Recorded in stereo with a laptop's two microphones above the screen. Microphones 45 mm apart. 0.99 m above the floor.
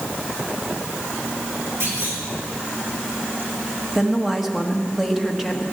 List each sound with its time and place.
1.8 s a clunk: 80° right, 4.5 m
4.0 s a woman speaking: 5° right (ahead or behind), 1.4 m